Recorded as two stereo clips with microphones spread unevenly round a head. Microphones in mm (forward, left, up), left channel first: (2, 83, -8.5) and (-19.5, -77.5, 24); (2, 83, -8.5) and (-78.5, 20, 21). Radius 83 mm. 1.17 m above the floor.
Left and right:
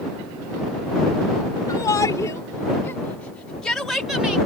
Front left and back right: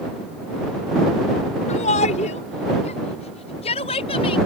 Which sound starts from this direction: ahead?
A shout, at 1.7 s.